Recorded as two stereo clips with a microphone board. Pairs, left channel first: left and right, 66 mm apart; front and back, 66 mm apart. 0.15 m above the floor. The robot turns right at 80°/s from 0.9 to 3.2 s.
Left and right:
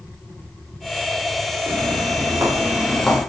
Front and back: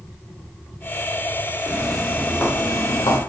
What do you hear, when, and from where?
1.7 s footsteps: 120° right, 3 m; by 3.2 s 25° left, 2 m